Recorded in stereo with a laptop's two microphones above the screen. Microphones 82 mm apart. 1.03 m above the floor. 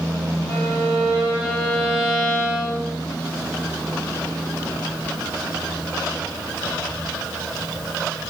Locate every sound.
0.5 s a violin: 35° left (ahead or behind), 4.5 m